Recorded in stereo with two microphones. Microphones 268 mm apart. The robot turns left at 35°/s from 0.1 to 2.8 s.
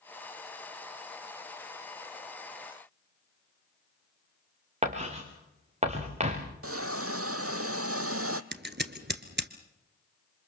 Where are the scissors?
45° right (ahead or behind), 1.3 m.